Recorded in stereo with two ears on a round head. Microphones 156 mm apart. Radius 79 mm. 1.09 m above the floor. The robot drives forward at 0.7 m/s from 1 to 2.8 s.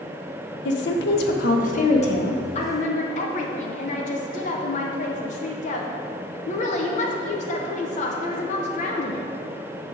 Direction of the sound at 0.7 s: 70° left (ahead or behind).